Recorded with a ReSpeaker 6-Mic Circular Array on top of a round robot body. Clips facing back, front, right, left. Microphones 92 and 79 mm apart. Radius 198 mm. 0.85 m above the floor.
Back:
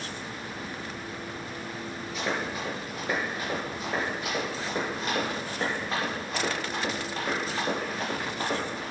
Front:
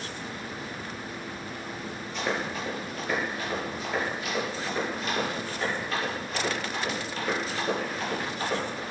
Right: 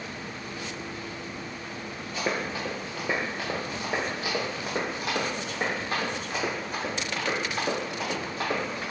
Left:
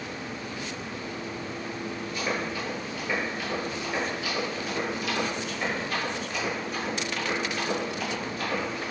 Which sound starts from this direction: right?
Running footsteps, at 2.1 s.